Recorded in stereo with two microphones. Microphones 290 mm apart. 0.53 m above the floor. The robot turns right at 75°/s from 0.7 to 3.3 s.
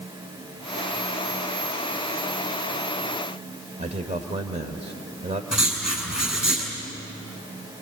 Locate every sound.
3.8 s a man speaking: 25° right (ahead or behind), 1.6 m
5.5 s writing: centre (ahead or behind), 6.5 m